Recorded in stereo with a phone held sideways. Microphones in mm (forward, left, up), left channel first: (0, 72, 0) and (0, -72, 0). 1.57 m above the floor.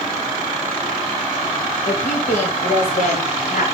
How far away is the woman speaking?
About 3 m.